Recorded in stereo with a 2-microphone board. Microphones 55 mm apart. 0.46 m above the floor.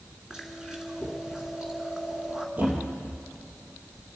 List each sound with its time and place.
0.3 s chewing: 10° right (ahead or behind), 2 m
2.6 s a thud: 35° right (ahead or behind), 2.5 m